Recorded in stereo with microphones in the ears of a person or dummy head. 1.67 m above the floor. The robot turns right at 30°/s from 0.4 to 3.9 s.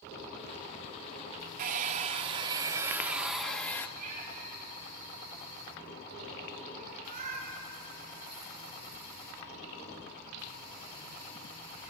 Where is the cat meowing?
50° right (ahead or behind), 9.5 m.